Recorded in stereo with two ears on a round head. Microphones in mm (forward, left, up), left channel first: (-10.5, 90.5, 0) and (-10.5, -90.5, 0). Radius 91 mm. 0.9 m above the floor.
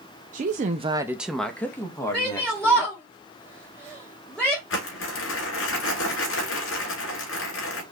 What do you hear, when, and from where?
0.3 s a woman speaking: 35° right (ahead or behind), 0.7 m; by 2.9 s 20° left (ahead or behind), 2 m
2.1 s a shout: 5° left (ahead or behind), 1.5 m
4.7 s crumpling: 65° left (ahead or behind), 2.5 m